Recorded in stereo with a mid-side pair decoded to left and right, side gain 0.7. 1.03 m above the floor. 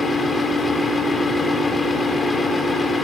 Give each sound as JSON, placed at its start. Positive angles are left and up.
{"t": 0.0, "sound": "a fan", "azimuth_deg": 15, "distance_m": 1.9}